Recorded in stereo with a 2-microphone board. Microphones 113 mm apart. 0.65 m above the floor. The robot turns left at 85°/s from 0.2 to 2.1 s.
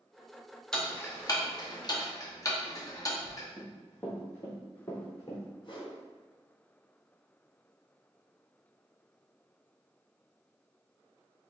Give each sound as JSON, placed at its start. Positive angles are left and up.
{"t": 0.7, "sound": "ticking", "side_deg": 5, "distance_m": 0.9}
{"t": 3.6, "sound": "running footsteps", "side_deg": 5, "distance_m": 1.8}
{"t": 5.6, "sound": "a whoosh", "side_deg": 45, "distance_m": 1.2}